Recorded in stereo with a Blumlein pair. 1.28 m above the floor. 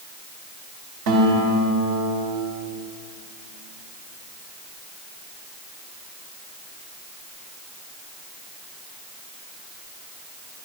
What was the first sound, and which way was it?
A guitar, 50° right.